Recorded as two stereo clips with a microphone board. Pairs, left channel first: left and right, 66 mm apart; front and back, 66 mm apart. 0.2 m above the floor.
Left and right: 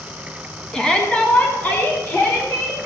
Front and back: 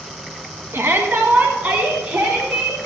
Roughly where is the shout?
Behind.